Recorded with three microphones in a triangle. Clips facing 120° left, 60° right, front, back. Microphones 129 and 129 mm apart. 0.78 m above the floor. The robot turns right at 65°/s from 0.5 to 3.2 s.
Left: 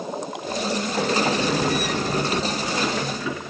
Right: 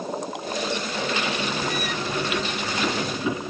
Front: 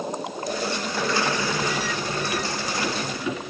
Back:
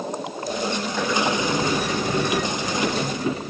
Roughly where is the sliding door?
Left.